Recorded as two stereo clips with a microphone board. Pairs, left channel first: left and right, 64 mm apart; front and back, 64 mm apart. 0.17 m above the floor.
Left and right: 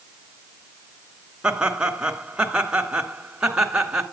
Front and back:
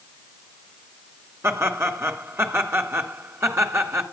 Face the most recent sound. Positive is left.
turn(degrees=-160)